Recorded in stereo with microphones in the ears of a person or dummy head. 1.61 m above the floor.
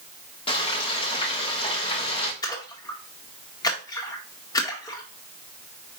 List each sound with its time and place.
0.5 s frying: 35° left (ahead or behind), 1.4 m
2.4 s a splash: 30° left (ahead or behind), 1.6 m